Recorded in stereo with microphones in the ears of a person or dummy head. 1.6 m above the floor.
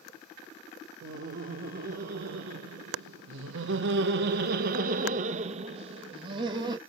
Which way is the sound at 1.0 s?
55° right (ahead or behind).